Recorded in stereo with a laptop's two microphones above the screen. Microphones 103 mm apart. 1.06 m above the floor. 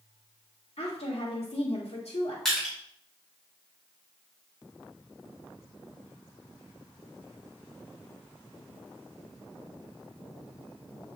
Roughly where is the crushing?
Centre.